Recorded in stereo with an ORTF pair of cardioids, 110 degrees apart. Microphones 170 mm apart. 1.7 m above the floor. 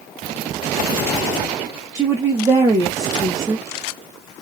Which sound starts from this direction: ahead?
A woman speaking, at 1.9 s.